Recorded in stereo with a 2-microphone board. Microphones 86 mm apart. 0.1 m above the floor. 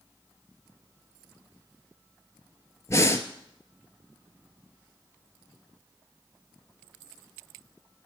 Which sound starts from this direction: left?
Breathing, at 2.9 s.